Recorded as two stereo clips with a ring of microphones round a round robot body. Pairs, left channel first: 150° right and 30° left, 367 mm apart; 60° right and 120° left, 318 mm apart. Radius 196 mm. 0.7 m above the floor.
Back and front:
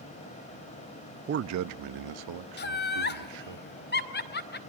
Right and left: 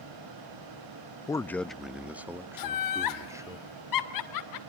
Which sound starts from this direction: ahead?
A man speaking, at 1.3 s.